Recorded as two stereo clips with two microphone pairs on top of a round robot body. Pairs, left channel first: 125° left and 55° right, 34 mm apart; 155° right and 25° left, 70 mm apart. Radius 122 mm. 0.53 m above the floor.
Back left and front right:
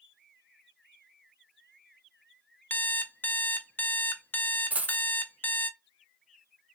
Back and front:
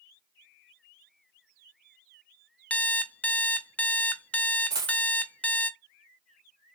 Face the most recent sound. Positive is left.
turn(degrees=-10)